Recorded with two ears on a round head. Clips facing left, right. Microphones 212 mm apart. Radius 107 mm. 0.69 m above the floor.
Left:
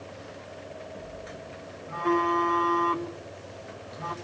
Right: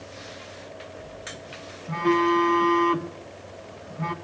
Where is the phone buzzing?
50° right (ahead or behind), 1.6 m.